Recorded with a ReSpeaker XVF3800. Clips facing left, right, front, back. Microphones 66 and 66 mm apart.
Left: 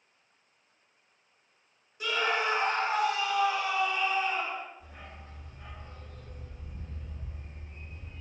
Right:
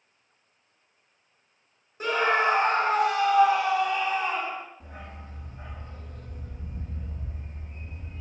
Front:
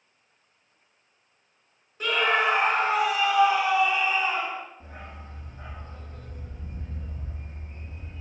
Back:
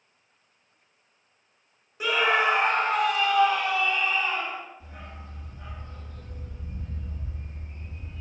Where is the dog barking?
50° right, 5 m.